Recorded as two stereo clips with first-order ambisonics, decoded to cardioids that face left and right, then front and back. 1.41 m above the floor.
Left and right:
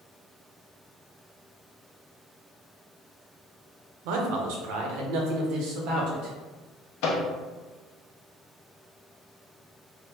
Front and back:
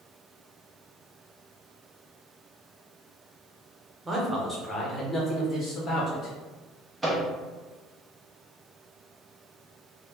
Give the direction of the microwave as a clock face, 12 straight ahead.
9 o'clock.